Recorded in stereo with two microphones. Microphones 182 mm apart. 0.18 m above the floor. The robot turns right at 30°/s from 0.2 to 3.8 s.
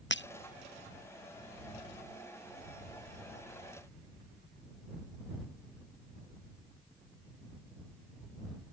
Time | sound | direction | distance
0.1 | breaking glass | 85° left | ?